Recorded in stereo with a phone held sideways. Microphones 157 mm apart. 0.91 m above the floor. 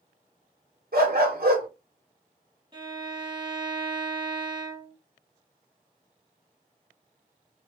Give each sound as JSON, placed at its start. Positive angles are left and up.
{"t": 0.9, "sound": "a dog barking", "side_deg": -75, "distance_m": 1.5}
{"t": 2.7, "sound": "a violin", "side_deg": -30, "distance_m": 2.5}